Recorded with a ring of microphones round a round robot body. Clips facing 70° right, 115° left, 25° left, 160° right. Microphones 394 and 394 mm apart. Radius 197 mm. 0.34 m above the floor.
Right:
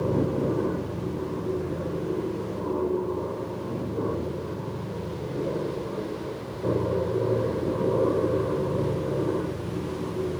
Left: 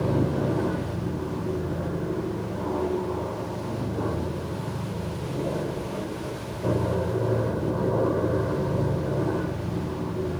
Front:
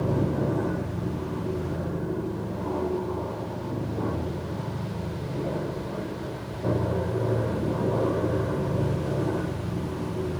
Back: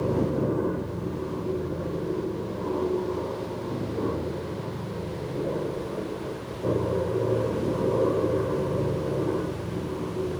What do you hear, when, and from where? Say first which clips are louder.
0.0 s an aircraft: even, back 1 dB; 70° left